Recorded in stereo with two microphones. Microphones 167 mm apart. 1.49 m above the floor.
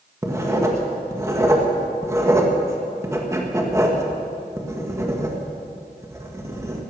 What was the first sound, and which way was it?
Writing, 15° right (ahead or behind).